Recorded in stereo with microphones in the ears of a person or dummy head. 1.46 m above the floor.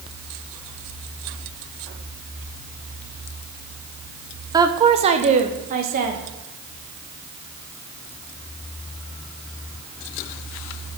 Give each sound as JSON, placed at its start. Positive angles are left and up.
{"t": 4.5, "sound": "a woman speaking", "side_deg": -10, "distance_m": 0.7}